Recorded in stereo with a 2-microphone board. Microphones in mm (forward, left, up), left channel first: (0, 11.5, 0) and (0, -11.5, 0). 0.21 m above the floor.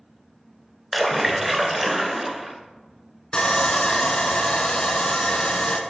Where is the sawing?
40° left (ahead or behind), 0.5 m.